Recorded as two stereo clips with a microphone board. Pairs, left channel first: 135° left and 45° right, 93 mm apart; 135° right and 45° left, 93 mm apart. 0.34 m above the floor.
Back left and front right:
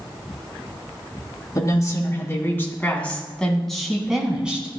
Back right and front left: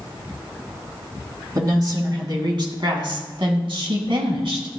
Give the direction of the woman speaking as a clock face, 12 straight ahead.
9 o'clock.